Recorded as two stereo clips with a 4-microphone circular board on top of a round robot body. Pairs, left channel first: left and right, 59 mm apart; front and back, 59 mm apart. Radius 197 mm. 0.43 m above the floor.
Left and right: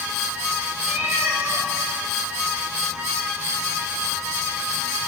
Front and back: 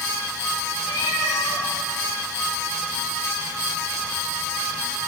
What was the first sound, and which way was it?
A cat meowing, 20° right.